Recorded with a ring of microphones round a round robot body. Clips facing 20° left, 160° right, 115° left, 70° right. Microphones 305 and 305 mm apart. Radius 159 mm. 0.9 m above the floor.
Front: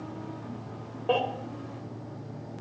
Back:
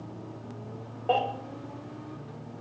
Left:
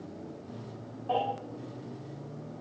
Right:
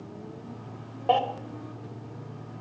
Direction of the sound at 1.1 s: 55° right.